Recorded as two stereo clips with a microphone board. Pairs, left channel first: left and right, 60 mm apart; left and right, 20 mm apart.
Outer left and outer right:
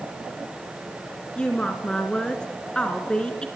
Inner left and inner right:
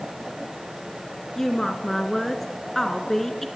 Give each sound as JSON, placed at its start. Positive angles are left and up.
{"t": 1.4, "sound": "a woman speaking", "side_deg": 15, "distance_m": 3.0}